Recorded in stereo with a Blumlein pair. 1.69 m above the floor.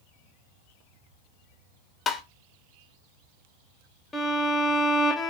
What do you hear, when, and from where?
2.1 s tapping: 20° left, 0.5 m
4.1 s a violin: 10° left, 0.6 m